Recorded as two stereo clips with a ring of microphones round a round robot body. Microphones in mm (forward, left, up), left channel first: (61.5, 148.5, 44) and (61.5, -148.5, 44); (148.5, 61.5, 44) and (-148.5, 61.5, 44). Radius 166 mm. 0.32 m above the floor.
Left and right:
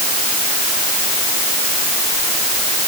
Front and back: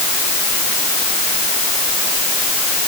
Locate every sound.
Only background noise.